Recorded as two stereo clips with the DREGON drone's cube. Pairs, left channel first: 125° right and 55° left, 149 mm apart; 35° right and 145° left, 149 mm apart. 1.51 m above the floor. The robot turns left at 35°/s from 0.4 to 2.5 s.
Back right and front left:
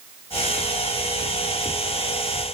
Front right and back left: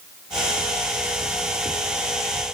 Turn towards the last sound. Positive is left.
No sound to turn to.